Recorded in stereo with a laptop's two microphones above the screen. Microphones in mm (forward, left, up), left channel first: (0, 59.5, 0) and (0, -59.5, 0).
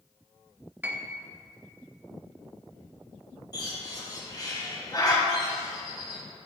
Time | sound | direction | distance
0.8 | a piano | 15° right (ahead or behind) | 0.7 m
3.5 | a bird | 35° left (ahead or behind) | 2.5 m